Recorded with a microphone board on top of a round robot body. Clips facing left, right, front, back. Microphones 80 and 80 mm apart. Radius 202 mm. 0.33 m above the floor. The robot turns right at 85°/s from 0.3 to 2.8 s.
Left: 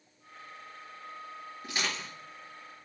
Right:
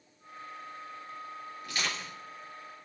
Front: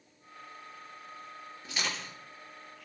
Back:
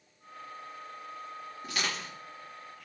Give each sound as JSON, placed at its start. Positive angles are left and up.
{"t": 1.6, "sound": "crushing", "azimuth_deg": 150, "distance_m": 4.0}